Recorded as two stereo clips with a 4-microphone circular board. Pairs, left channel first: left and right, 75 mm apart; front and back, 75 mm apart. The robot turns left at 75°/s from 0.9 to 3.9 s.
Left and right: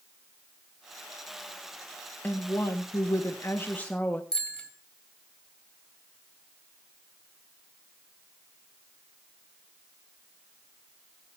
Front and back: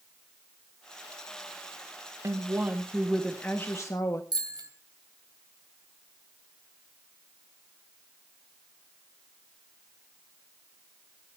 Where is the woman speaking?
150° left, 1.4 m; by 4.2 s 25° left, 1.4 m.